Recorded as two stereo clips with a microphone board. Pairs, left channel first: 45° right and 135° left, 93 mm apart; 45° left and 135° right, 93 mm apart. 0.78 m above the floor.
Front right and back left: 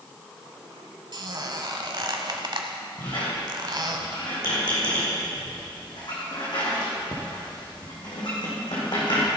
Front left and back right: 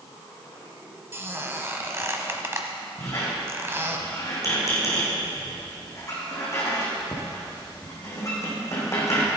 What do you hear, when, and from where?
1.1 s a squeak: 165° left, 1.1 m
3.0 s a squeak: 10° right, 4 m